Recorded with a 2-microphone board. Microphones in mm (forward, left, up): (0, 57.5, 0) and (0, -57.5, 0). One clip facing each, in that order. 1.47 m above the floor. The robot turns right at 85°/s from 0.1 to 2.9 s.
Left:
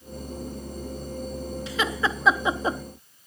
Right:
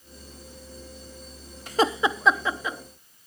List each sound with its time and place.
1.7 s laughter: 50° right (ahead or behind), 1.0 m; by 2.8 s 45° left (ahead or behind), 1.0 m